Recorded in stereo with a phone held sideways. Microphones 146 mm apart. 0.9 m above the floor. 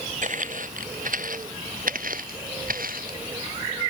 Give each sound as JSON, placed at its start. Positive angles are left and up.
{"t": 0.2, "sound": "footsteps", "side_deg": -60}